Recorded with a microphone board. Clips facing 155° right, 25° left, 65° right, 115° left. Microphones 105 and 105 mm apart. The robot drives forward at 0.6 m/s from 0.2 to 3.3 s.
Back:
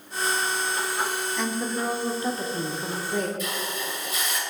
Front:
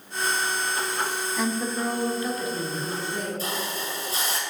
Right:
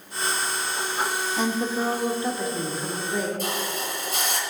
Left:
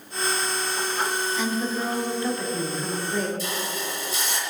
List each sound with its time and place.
1.4 s a woman speaking: 60° right, 0.9 m; by 3.3 s 155° right, 1.2 m
3.4 s a hiss: 35° right, 1.6 m